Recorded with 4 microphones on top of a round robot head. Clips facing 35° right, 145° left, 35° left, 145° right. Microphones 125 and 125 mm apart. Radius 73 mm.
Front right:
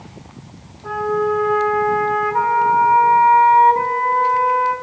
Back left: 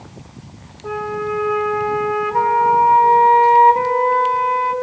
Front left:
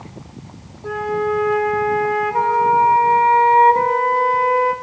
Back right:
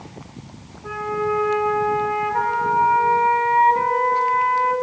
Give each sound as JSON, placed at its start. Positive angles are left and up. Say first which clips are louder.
{"t": 0.8, "sound": "a flute", "louder": "front right 4 dB, front left 3 dB", "azimuth_deg": 85, "distance_m": 2.0}